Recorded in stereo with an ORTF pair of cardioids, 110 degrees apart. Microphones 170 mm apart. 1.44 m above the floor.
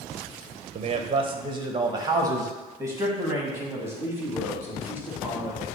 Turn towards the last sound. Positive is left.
turn(degrees=-10)